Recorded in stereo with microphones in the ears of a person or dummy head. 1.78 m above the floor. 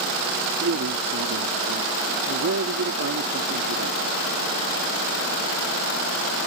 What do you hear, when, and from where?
0.6 s a man speaking: 75° right (ahead or behind)